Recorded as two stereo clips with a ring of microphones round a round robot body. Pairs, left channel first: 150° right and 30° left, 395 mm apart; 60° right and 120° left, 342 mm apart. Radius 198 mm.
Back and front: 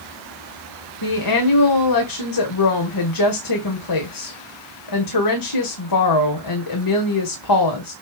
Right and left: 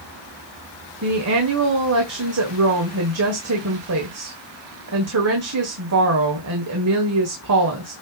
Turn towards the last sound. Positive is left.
turn(degrees=175)